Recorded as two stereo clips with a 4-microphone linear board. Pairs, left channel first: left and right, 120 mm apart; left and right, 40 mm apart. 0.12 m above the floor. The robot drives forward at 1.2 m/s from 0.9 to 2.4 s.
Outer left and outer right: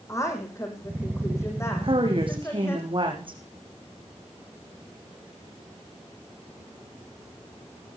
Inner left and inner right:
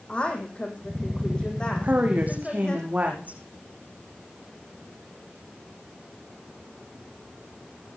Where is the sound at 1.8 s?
45° right (ahead or behind), 5.5 m.